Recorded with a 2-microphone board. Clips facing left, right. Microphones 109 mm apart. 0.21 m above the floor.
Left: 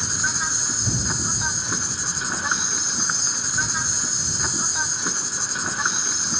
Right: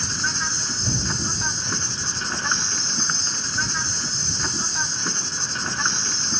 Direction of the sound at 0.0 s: 5° left (ahead or behind).